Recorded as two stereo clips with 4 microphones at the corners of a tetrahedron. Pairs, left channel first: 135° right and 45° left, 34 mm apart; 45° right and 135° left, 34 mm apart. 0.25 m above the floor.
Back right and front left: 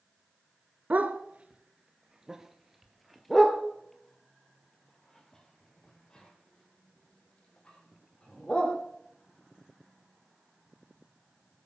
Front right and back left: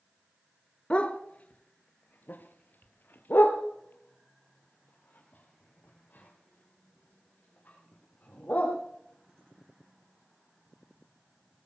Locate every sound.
0.9 s a dog barking: 10° left, 1.4 m; by 8.7 s 75° right, 5 m